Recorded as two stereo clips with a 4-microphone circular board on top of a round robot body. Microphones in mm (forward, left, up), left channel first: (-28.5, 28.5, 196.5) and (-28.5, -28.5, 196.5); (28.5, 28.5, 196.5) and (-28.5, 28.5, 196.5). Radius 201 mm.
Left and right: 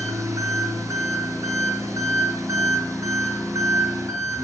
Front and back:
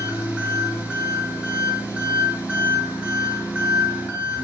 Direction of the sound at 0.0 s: 110° right.